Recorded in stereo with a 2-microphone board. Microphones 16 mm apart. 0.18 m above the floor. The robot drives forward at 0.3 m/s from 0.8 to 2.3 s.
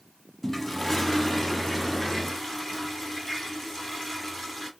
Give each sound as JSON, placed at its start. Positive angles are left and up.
{"t": 0.4, "sound": "a toilet flushing", "side_deg": 20, "distance_m": 0.6}